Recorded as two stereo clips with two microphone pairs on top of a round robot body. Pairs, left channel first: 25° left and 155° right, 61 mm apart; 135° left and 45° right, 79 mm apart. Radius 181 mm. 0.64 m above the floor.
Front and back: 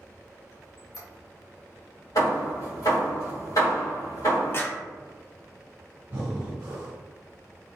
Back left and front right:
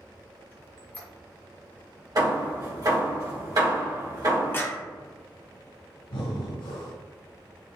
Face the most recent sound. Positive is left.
turn(degrees=145)